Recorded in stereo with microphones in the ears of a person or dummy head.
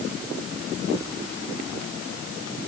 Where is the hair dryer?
I don't hear a hair dryer.